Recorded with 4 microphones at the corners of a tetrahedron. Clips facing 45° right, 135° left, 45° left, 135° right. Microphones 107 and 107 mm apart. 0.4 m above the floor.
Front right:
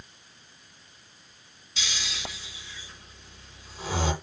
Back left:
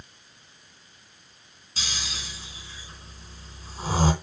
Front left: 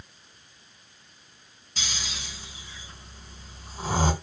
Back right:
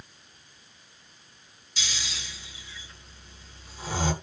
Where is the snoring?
85° left, 3 m.